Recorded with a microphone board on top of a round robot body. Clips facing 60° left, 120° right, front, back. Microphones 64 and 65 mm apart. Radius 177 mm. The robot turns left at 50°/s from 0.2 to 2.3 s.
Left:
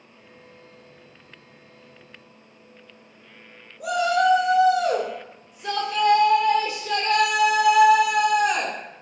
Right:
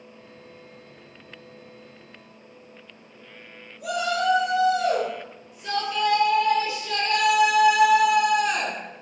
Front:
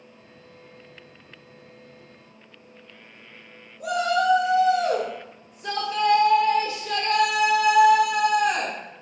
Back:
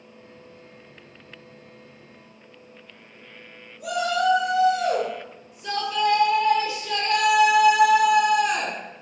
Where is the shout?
40° left, 1.8 m.